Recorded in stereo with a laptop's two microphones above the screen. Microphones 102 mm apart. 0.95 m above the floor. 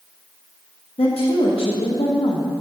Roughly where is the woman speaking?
Left.